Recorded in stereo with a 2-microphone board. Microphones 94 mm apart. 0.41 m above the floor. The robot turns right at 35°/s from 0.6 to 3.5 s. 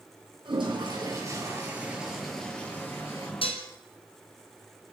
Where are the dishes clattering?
70° left (ahead or behind), 3 m; by 3.7 s 75° left (ahead or behind), 3 m.